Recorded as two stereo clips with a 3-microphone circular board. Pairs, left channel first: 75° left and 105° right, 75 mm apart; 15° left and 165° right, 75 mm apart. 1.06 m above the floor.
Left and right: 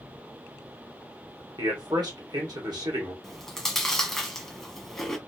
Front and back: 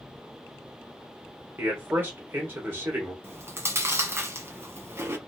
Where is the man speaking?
110° right, 1.7 m.